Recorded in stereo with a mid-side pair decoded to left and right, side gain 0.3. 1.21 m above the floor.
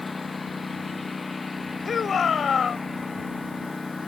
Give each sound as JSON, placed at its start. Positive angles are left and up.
{"t": 0.0, "sound": "a lawn mower", "azimuth_deg": 40}
{"t": 1.9, "sound": "a shout", "azimuth_deg": 65}